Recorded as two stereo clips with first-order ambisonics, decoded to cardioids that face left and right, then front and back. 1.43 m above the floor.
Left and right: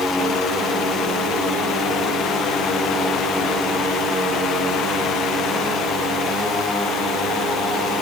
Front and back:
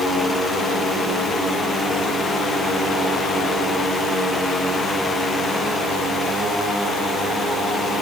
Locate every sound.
Only background noise.